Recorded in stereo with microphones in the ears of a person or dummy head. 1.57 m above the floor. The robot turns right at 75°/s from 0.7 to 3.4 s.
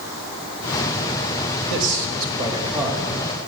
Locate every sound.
1.7 s a man speaking: 85° right, 3 m; by 3.1 s 20° left, 3 m